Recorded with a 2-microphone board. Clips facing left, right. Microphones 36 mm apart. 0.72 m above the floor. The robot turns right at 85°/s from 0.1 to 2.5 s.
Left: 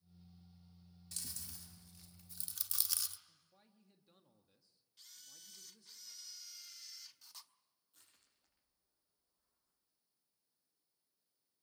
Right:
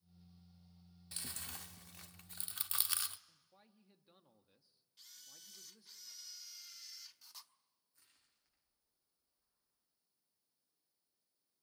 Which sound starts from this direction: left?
Crushing, at 7.9 s.